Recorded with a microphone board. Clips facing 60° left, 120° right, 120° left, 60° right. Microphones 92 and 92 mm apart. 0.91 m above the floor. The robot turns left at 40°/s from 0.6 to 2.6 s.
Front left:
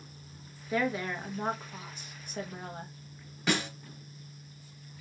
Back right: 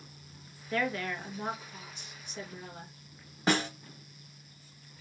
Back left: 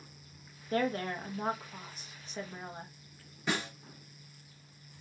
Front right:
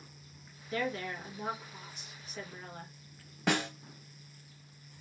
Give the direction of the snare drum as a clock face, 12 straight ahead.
2 o'clock.